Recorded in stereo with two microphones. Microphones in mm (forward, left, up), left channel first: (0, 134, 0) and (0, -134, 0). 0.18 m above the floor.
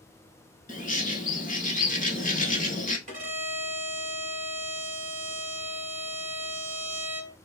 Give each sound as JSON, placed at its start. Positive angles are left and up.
{"t": 0.7, "sound": "a bird", "side_deg": 30, "distance_m": 0.8}
{"t": 3.1, "sound": "a violin", "side_deg": -30, "distance_m": 1.2}